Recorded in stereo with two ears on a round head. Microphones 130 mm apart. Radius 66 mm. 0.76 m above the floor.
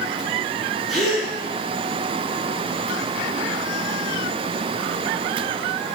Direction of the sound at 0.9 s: Centre (ahead or behind).